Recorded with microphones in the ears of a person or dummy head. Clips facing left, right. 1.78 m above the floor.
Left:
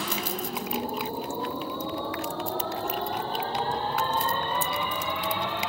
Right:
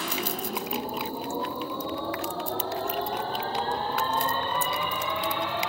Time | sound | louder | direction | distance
0.0 | a machine running | even | 20° left (ahead or behind) | 8 m